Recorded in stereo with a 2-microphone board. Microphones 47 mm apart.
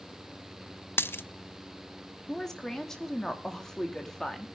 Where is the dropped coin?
55° left (ahead or behind), 0.6 m.